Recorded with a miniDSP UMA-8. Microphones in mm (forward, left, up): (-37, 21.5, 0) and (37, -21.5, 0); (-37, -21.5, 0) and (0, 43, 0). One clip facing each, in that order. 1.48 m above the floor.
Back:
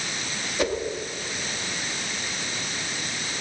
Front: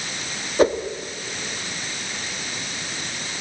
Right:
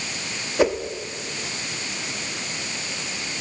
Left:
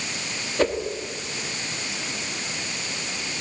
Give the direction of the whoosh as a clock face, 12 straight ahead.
2 o'clock.